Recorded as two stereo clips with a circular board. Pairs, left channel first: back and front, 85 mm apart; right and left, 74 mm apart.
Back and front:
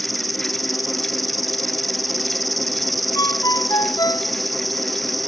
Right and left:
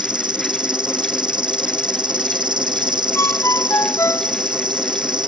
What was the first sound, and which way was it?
An insect, 90° left.